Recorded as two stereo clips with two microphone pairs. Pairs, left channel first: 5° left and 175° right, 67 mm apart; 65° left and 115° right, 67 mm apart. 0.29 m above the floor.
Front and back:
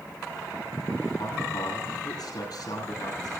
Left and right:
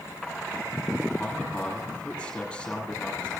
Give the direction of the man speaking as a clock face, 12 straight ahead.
12 o'clock.